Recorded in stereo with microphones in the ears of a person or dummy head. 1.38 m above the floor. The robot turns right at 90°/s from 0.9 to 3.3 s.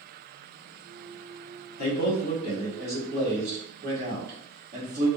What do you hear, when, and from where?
1.8 s a man speaking: 90° left, 1.4 m; by 5.1 s 135° right, 1.4 m